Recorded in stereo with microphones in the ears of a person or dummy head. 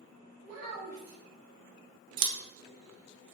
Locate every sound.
0.4 s a child speaking: 45° right (ahead or behind), 0.7 m
2.2 s scissors: 60° right (ahead or behind), 0.7 m